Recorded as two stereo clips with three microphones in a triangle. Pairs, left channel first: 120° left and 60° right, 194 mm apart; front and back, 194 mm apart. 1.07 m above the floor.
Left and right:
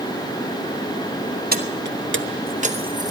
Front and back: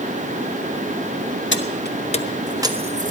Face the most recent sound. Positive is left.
turn(degrees=-130)